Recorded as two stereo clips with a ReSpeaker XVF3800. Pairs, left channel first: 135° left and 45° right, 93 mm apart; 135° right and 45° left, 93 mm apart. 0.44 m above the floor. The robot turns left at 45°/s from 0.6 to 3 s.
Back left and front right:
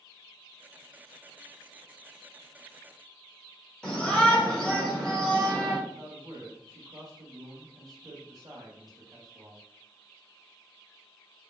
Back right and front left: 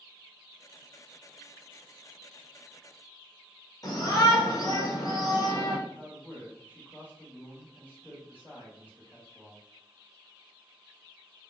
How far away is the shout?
About 1.1 m.